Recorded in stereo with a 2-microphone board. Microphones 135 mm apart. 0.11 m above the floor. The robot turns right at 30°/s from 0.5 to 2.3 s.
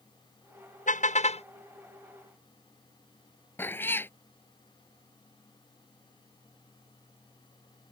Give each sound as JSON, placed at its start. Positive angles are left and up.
{"t": 0.9, "sound": "a car horn", "side_deg": 70}
{"t": 3.6, "sound": "a cat meowing", "side_deg": 15}